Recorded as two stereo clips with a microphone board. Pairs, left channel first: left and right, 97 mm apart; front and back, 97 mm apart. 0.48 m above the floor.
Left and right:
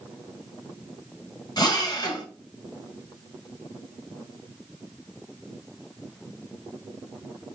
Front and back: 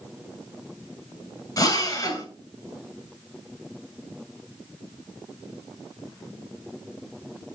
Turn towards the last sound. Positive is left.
turn(degrees=50)